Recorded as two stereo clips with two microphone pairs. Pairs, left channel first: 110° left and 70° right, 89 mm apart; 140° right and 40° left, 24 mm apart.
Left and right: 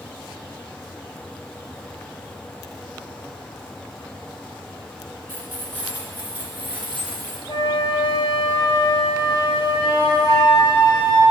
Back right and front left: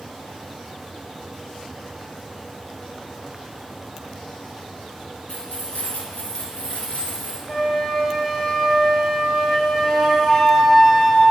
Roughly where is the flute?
Behind left.